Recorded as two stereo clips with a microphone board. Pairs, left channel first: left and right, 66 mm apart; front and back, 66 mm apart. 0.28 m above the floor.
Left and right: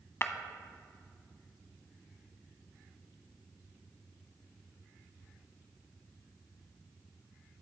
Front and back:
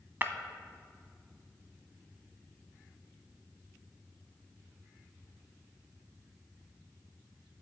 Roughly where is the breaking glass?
Behind left.